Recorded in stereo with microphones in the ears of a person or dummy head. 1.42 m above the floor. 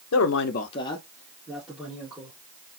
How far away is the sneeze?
I don't hear a sneeze.